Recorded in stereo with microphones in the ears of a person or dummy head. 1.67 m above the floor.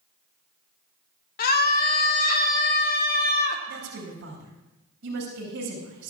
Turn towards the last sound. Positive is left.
turn(degrees=-70)  # may be behind; listen again after turning